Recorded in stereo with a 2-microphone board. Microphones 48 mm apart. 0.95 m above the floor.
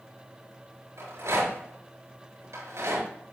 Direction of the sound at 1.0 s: 75° right (ahead or behind).